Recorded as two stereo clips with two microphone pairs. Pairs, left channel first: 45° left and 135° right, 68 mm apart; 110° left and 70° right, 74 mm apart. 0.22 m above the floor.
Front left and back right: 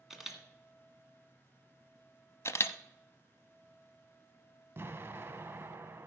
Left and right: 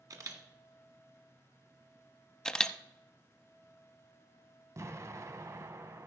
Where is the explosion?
100° right, 0.8 m.